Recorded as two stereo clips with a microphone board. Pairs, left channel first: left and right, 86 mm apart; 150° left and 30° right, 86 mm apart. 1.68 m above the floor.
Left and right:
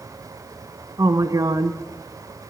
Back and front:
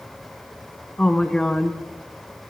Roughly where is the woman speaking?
Behind right.